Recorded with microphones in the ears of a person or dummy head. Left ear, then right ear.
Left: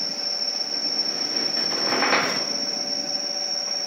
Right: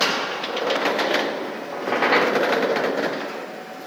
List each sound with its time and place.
1.7 s a squeak: 10° left (ahead or behind), 0.9 m